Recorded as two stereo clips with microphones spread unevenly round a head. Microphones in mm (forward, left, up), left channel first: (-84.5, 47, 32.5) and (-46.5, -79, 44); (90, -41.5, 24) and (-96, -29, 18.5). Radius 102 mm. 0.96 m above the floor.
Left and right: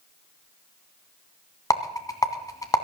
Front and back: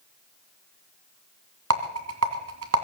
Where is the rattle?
175° left, 2 m.